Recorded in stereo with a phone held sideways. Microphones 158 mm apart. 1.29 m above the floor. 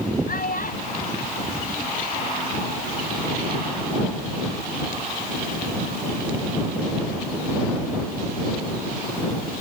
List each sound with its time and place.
0.3 s a child speaking: 65° left (ahead or behind); by 2.5 s 40° left (ahead or behind)